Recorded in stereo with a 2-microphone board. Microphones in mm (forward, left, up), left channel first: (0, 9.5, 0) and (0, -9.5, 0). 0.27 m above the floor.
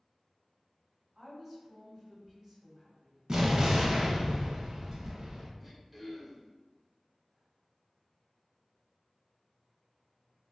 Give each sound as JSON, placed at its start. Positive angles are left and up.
{"t": 1.1, "sound": "a woman speaking", "side_deg": -25, "distance_m": 1.5}
{"t": 3.3, "sound": "an explosion", "side_deg": -35, "distance_m": 0.5}
{"t": 5.6, "sound": "throat clearing", "side_deg": -10, "distance_m": 0.6}